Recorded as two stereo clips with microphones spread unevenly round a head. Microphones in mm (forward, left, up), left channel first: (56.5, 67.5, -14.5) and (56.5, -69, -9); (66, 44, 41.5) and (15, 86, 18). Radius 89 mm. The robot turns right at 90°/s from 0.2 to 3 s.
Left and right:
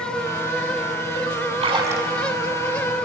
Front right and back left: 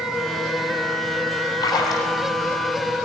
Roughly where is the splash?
Ahead right.